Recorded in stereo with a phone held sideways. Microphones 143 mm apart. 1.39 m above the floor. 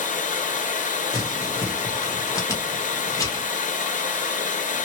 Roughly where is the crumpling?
Left.